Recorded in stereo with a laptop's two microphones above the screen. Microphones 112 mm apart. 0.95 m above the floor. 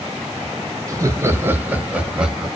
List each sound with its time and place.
0.9 s laughter: 30° right (ahead or behind), 0.7 m; by 2.5 s 5° right (ahead or behind), 1.1 m